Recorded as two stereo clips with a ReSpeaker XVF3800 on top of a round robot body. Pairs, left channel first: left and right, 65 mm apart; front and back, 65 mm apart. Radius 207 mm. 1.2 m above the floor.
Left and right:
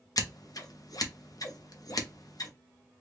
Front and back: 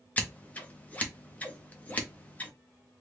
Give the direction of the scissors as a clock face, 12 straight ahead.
10 o'clock.